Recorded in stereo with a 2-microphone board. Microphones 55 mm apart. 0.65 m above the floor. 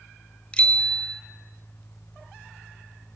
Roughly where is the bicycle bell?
Centre.